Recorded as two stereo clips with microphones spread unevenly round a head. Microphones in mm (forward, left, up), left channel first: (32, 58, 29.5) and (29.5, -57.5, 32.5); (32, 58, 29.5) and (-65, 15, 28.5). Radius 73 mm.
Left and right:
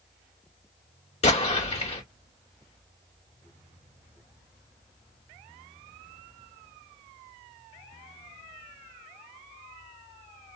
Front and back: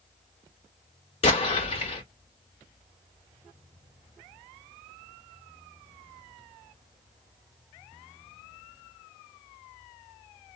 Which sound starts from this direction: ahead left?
An explosion, at 1.2 s.